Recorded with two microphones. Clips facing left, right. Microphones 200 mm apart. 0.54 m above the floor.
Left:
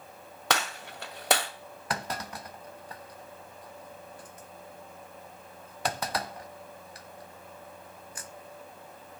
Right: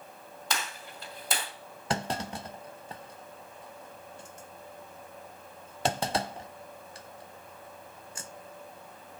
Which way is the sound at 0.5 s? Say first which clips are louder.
Left 6 dB; 75° left (ahead or behind).